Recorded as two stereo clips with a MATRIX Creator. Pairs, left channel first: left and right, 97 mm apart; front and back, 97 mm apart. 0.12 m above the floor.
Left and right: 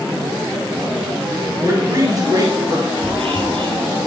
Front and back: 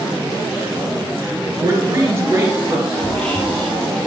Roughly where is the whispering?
Right.